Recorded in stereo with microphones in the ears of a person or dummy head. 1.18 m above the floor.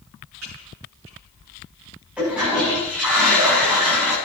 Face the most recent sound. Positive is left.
turn(degrees=-10)  # may be behind; listen again after turning